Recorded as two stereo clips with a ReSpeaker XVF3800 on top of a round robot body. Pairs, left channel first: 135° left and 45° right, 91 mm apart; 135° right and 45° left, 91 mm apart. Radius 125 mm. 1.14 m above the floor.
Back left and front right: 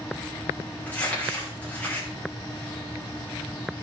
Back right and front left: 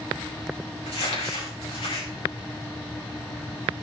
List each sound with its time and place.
0.9 s crumpling: 150° right, 5 m